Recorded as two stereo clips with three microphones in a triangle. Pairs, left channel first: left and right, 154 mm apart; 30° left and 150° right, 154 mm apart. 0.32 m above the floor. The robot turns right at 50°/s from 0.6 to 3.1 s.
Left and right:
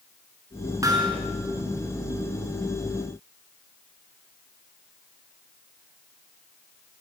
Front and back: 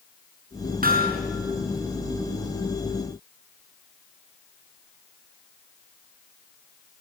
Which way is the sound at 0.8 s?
160° right.